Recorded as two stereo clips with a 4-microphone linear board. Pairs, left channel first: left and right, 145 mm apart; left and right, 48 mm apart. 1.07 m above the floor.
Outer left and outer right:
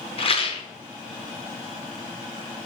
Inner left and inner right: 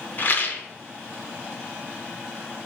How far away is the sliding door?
No sliding door in this recording.